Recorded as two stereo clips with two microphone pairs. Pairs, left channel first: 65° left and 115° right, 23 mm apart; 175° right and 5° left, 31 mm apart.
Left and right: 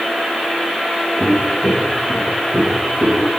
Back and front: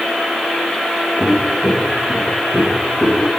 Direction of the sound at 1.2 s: 95° left.